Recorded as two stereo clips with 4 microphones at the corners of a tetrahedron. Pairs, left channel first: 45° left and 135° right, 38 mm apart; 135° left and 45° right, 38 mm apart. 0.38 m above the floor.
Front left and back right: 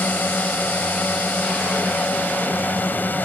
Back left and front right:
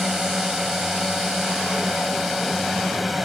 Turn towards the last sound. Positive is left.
turn(degrees=40)